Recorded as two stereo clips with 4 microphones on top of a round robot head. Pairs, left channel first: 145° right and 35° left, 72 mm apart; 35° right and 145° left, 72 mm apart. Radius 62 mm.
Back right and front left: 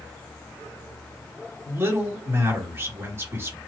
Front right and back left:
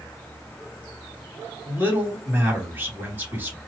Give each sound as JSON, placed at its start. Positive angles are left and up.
{"t": 1.6, "sound": "a man speaking", "azimuth_deg": 85, "distance_m": 1.9}